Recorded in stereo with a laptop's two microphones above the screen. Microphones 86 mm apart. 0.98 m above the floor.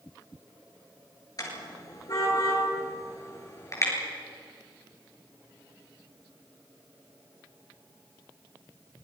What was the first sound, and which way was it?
A car horn, 45° left (ahead or behind).